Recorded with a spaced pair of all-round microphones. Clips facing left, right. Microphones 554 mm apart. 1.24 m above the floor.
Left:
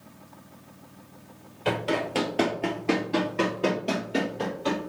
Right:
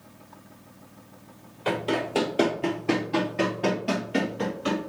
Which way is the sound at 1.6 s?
35° left (ahead or behind).